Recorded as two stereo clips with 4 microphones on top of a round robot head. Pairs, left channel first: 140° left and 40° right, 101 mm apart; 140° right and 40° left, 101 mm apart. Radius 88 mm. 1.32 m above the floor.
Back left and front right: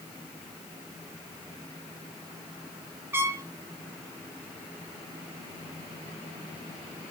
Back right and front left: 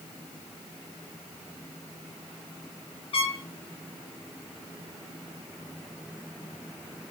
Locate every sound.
3.1 s a trumpet: 110° right, 1.6 m